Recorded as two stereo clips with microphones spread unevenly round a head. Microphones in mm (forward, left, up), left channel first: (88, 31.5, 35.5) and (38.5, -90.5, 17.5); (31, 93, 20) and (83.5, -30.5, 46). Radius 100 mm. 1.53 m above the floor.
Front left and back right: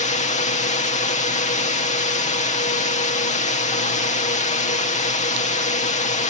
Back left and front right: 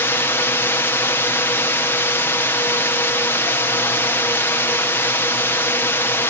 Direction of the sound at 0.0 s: 50° left.